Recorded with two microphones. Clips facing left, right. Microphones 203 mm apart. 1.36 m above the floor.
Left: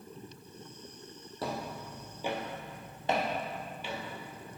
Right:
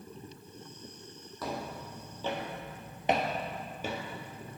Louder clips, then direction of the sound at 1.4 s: Left 1 dB; 30° left (ahead or behind).